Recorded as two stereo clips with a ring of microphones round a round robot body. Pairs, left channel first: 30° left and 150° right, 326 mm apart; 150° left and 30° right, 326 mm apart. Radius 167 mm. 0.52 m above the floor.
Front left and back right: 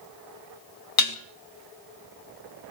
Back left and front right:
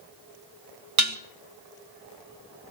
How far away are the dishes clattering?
About 1.6 m.